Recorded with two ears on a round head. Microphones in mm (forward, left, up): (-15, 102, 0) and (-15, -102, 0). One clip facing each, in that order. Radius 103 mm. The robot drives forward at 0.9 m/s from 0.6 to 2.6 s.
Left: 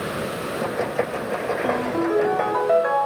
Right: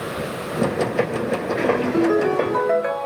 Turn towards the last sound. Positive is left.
turn(degrees=-35)  # may be behind; listen again after turning